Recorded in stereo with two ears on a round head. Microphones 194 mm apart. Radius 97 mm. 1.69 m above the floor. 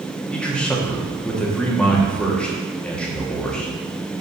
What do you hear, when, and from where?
0.3 s a man speaking: 5° left (ahead or behind), 1.3 m